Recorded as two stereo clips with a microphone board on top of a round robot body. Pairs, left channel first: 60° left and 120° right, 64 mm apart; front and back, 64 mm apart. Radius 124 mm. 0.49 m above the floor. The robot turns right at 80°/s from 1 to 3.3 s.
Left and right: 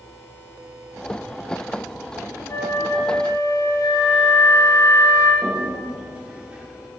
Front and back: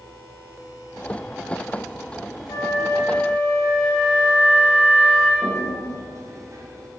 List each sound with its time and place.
2.5 s a flute: 25° left, 2.5 m; by 5.3 s 90° left, 2.5 m
5.4 s a toilet flushing: 170° left, 1.3 m